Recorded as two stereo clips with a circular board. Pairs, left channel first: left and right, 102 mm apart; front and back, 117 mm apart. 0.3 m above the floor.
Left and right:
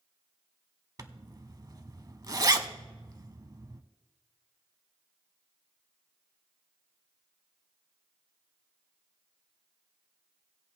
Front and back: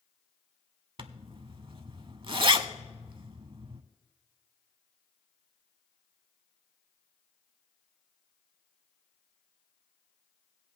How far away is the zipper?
About 0.6 m.